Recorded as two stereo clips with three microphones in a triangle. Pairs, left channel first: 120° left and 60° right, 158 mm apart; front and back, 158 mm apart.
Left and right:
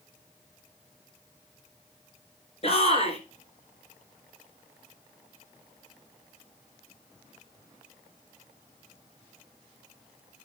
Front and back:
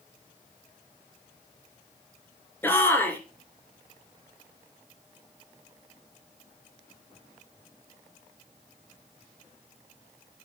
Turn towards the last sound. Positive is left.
turn(degrees=75)